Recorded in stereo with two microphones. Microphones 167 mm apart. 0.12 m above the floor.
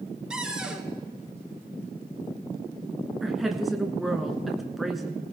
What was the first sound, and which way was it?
A cupboard door, 5° right (ahead or behind).